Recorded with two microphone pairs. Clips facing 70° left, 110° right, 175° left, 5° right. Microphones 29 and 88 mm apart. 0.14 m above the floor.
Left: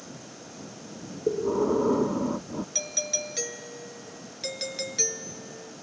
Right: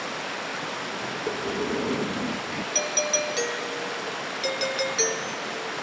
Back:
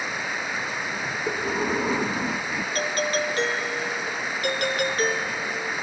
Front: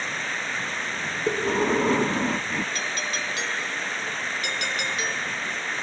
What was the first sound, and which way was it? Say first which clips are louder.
Running water: right 13 dB, back 1 dB; 105° right.